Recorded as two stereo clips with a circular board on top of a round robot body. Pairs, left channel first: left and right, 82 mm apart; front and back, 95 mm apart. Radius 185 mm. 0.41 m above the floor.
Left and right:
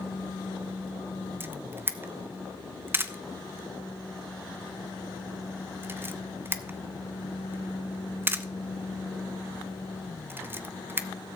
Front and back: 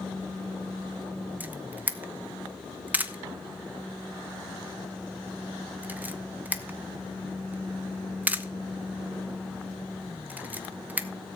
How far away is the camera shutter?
About 1.1 m.